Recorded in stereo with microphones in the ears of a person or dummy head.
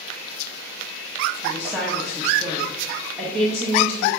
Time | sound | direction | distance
1.4 | a woman speaking | 5° right (ahead or behind) | 1.4 m